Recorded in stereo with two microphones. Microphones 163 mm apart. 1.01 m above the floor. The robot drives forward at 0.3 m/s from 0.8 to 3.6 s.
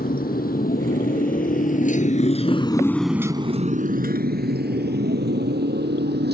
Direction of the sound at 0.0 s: 65° left (ahead or behind).